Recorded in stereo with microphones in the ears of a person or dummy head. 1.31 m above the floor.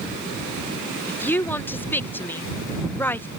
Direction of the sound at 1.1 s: 15° left (ahead or behind).